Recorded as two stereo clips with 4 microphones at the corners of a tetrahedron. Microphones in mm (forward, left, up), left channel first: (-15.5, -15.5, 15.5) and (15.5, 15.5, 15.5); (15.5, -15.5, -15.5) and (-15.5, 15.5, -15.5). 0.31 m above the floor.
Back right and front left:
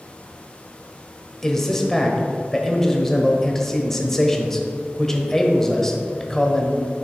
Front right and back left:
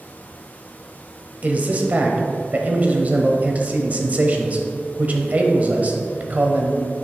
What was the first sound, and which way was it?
A man speaking, 150° left.